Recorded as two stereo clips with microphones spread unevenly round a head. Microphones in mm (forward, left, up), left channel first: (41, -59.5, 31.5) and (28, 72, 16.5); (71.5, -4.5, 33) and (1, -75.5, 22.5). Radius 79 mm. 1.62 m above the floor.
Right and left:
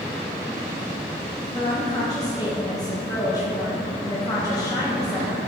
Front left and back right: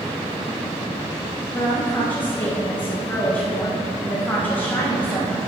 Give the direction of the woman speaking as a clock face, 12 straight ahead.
1 o'clock.